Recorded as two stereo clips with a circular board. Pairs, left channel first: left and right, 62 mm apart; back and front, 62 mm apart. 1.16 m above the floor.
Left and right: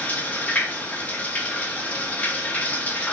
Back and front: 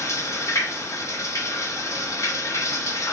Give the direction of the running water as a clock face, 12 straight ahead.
7 o'clock.